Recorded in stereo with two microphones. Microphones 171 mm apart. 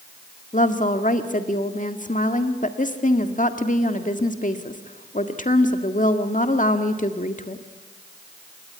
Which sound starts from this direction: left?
A woman speaking, at 0.5 s.